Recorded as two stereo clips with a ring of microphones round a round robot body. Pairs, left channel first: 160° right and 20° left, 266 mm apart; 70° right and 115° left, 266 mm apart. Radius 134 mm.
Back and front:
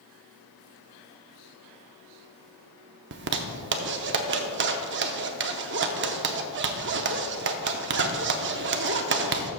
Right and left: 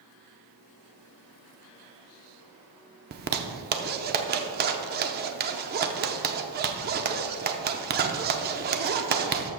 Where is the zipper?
65° left, 0.6 m.